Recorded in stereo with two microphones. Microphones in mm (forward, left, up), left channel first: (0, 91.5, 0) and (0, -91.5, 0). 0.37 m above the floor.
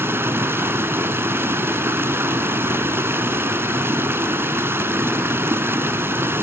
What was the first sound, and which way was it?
Running water, 10° right (ahead or behind).